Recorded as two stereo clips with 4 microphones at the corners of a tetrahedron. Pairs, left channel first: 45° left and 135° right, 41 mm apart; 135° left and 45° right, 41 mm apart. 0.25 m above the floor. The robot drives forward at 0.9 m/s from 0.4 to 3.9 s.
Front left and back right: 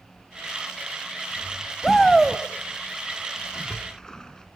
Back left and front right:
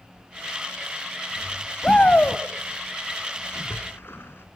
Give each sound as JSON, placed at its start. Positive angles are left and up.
{"t": 1.8, "sound": "a shout", "azimuth_deg": 105, "distance_m": 1.0}
{"t": 3.5, "sound": "a splash", "azimuth_deg": 110, "distance_m": 1.9}